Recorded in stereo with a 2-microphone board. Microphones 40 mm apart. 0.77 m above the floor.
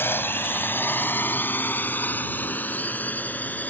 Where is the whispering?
I don't hear whispering.